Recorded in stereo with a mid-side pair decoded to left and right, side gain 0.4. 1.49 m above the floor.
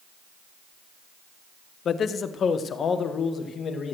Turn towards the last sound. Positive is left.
turn(degrees=55)